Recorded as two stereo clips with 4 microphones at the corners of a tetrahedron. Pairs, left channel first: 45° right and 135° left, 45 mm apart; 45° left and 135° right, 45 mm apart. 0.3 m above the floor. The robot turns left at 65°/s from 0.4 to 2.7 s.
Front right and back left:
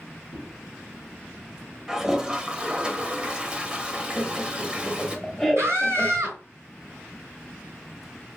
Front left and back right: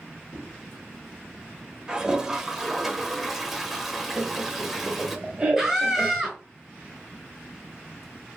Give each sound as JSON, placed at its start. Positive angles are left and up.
{"t": 0.3, "sound": "a whoosh", "azimuth_deg": 25, "distance_m": 2.0}
{"t": 1.9, "sound": "a toilet flushing", "azimuth_deg": -165, "distance_m": 0.8}
{"t": 4.2, "sound": "laughter", "azimuth_deg": -125, "distance_m": 0.9}
{"t": 5.6, "sound": "a scream", "azimuth_deg": 140, "distance_m": 3.0}